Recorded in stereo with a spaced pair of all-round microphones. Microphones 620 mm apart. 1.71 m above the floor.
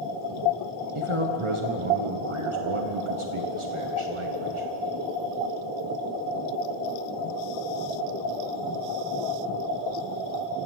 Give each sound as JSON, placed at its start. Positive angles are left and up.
{"t": 0.9, "sound": "a man speaking", "side_deg": -50, "distance_m": 1.6}